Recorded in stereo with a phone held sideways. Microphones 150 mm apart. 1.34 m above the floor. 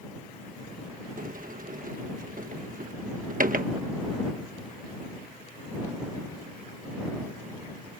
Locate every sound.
1.2 s a sliding door: 65° right (ahead or behind)